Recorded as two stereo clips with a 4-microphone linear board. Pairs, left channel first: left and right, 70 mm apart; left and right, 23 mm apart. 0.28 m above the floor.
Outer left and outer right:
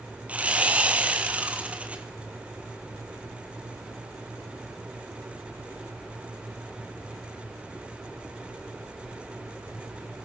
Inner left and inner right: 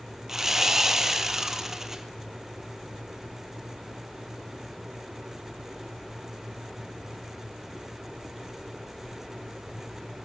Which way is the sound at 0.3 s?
20° right (ahead or behind).